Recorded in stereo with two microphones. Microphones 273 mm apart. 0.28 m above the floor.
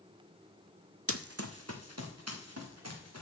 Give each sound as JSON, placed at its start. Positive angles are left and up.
{"t": 1.1, "sound": "running footsteps", "side_deg": -55, "distance_m": 0.6}